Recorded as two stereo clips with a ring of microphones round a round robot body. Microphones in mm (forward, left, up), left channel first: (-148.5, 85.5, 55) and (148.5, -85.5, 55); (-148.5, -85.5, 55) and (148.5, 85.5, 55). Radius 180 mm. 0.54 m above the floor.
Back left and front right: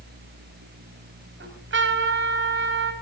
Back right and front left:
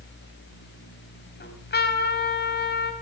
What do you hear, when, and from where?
1.4 s a trumpet: 90° right, 4.5 m